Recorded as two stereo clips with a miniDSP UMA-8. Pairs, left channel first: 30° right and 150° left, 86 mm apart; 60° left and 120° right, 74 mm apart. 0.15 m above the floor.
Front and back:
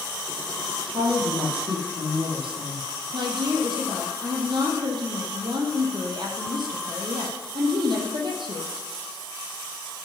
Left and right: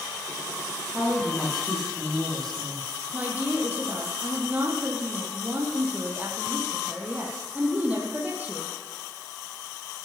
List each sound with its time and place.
0.9 s a woman speaking: 145° left, 7 m
3.1 s a woman speaking: 170° left, 4.5 m